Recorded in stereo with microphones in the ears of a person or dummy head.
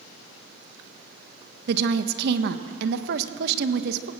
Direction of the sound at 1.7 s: 70° right (ahead or behind).